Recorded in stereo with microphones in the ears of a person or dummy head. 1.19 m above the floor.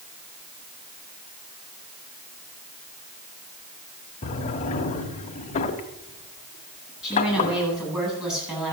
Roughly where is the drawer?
Left.